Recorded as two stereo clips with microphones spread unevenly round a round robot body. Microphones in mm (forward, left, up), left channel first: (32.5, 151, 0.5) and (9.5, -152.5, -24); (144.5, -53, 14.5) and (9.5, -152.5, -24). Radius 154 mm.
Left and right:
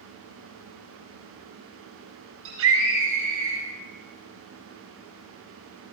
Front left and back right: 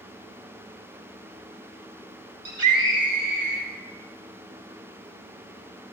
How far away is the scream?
About 9 m.